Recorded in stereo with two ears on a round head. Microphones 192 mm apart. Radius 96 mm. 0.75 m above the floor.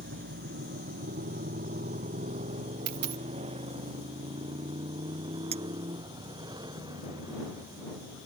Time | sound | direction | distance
0.0 | a motorcycle | 45° right (ahead or behind) | ?
2.9 | a dropped coin | 85° right | ?
5.5 | a clink | 30° right (ahead or behind) | ?